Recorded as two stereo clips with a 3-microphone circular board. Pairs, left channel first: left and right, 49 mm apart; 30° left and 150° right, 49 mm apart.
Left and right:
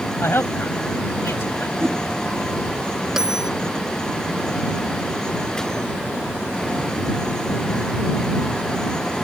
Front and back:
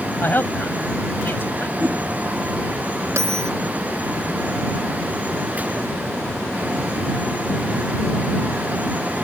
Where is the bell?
165° right.